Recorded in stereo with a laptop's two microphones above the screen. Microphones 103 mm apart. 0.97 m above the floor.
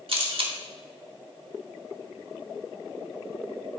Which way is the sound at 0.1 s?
60° right (ahead or behind).